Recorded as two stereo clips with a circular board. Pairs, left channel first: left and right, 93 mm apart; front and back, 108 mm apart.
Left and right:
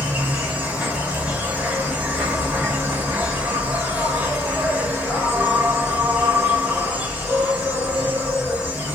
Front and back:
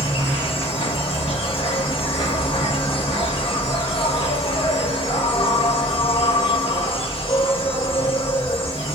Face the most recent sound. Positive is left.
turn(degrees=-20)